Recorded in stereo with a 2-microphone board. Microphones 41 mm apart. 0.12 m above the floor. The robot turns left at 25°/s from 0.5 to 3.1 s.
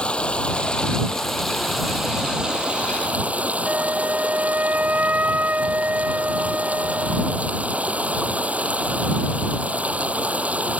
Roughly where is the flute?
Right.